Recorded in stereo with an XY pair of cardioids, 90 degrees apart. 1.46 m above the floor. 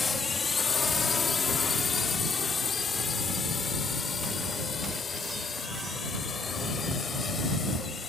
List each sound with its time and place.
0.0 s a drone: 35° left; by 8.1 s 40° left